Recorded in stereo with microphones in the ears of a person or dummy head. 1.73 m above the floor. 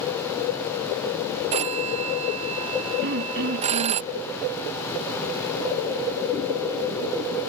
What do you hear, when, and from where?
1.5 s a phone ringing: 25° right (ahead or behind)
3.0 s throat clearing: 60° right (ahead or behind)